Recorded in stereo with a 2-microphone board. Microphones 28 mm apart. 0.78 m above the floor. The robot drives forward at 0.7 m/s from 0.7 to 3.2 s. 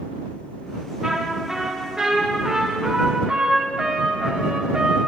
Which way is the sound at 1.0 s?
10° right (ahead or behind).